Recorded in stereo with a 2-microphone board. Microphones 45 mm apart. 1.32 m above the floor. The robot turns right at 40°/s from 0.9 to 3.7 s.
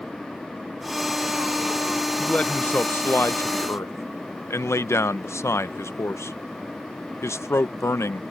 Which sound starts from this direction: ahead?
A man speaking, at 2.2 s.